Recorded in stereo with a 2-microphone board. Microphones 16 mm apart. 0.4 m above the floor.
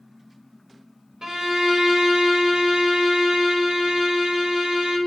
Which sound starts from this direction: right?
A violin, at 1.2 s.